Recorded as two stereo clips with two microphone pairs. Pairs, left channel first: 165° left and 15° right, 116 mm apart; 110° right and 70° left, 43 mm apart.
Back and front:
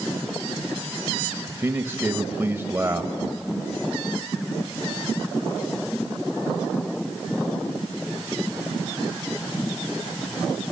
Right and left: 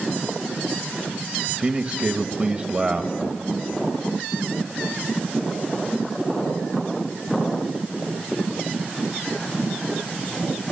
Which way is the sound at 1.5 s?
35° left.